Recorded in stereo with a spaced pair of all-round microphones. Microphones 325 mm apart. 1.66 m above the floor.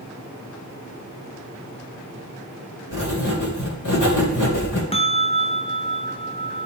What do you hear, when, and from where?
2.9 s writing: 70° left (ahead or behind), 2 m
4.9 s a bell: 20° left (ahead or behind), 0.7 m